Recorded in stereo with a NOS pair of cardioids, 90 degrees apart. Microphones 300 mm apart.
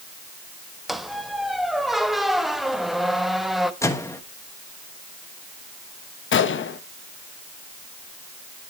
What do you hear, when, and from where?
0.9 s a squeak: straight ahead, 0.9 m
3.8 s a microwave: 10° left, 1.3 m
6.3 s a gunshot: 45° left, 0.9 m